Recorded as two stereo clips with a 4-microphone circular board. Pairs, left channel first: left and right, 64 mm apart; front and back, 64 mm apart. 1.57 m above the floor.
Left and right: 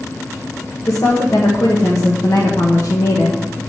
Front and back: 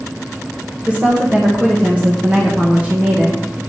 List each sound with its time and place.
0.9 s a woman speaking: 115° left, 1.6 m